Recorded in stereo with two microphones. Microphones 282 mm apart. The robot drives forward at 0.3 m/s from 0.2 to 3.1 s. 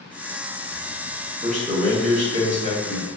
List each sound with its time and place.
1.4 s a man speaking: 25° right (ahead or behind), 0.9 m; by 3.1 s 20° right (ahead or behind), 1.1 m